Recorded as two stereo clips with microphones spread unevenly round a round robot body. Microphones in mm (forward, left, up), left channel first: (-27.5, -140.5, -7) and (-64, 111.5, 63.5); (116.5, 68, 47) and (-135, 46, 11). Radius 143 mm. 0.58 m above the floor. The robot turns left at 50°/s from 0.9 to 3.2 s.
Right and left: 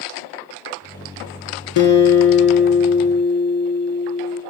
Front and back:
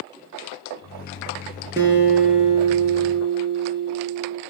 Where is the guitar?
90° right, 4.5 m; by 4.4 s 165° right, 4.5 m.